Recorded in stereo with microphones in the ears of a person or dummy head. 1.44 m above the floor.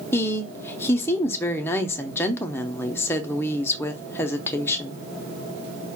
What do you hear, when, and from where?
0.1 s a woman speaking: 15° left (ahead or behind), 0.6 m